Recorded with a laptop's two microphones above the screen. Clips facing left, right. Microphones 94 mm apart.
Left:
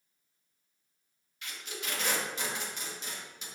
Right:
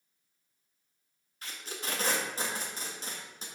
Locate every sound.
1.4 s tape being pulled: 35° right (ahead or behind), 1.5 m